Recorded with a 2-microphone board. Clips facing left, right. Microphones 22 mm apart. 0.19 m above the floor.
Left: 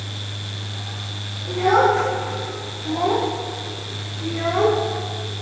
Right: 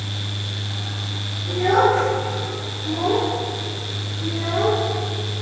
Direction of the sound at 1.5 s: 25° left (ahead or behind).